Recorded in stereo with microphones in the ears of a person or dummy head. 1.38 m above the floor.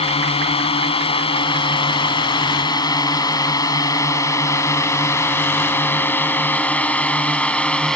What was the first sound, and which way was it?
A drone, 35° left (ahead or behind).